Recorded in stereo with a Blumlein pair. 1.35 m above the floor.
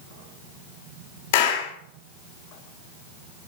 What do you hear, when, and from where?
1.3 s a clap: 50° left, 3 m